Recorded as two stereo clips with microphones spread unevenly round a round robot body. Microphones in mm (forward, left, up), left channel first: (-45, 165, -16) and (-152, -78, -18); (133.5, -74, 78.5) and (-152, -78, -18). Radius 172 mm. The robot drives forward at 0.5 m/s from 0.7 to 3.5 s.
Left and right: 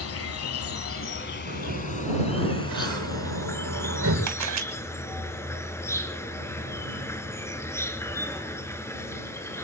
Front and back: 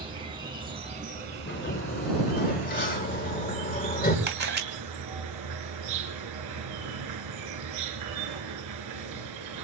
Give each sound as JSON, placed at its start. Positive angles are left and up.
{"t": 0.0, "sound": "an insect", "azimuth_deg": 105, "distance_m": 1.1}
{"t": 1.5, "sound": "a sliding door", "azimuth_deg": -50, "distance_m": 6.0}
{"t": 4.3, "sound": "a camera shutter", "azimuth_deg": -130, "distance_m": 2.0}